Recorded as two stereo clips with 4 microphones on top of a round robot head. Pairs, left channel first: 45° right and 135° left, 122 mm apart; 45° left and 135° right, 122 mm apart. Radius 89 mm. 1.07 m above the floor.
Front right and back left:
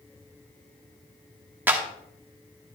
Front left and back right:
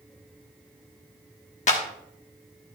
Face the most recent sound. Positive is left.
turn(degrees=65)